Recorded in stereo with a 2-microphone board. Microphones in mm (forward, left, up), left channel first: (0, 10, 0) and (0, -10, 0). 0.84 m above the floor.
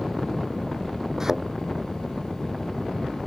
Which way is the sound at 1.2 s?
25° right (ahead or behind).